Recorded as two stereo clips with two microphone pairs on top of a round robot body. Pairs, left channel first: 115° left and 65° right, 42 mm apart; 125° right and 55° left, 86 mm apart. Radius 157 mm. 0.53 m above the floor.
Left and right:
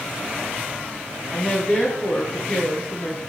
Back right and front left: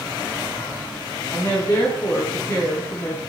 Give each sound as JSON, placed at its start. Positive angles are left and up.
{"t": 1.3, "sound": "a woman speaking", "azimuth_deg": 175, "distance_m": 7.0}